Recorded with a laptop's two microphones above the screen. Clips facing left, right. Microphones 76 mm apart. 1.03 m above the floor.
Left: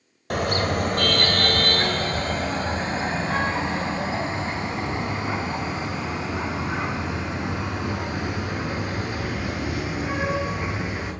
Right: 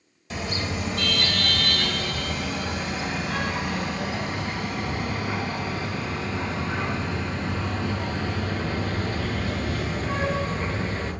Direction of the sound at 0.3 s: 55° left (ahead or behind).